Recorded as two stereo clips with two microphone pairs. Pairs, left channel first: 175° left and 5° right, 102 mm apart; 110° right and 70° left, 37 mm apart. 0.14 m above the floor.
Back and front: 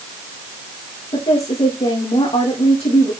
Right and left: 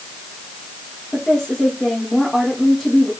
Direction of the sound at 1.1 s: 170° left.